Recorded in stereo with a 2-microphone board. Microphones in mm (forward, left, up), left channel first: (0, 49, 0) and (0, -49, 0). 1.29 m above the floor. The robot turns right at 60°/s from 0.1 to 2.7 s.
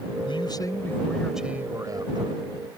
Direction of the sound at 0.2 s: 115° left.